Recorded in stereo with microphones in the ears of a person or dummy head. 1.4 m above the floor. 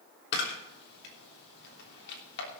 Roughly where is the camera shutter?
Left.